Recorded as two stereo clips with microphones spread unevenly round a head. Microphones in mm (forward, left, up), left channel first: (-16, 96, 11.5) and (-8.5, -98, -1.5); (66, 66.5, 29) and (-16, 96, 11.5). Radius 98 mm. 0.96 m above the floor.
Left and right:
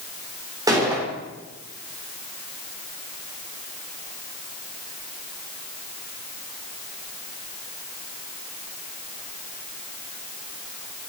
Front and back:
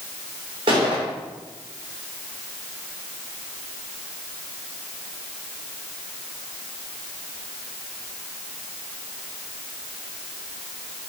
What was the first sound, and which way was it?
A gunshot, 160° right.